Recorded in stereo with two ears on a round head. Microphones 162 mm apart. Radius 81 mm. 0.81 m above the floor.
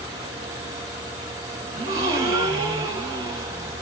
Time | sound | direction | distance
1.7 | a gasp | 20° right (ahead or behind) | 4 m